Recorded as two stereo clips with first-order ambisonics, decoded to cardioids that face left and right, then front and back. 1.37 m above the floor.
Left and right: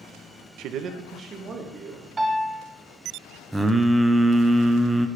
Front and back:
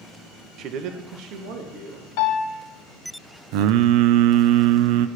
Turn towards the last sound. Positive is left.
turn(degrees=-175)